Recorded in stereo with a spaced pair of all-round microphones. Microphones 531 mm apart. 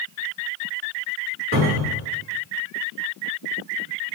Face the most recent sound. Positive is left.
turn(degrees=-25)  # may be behind; listen again after turning